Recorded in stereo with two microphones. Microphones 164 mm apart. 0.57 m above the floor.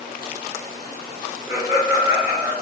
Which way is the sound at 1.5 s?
15° right (ahead or behind).